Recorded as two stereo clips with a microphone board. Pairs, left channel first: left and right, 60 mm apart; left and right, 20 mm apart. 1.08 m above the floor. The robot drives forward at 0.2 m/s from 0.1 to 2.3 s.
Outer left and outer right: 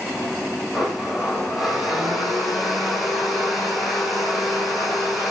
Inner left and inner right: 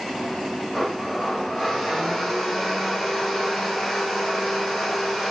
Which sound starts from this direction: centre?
A blender, at 0.7 s.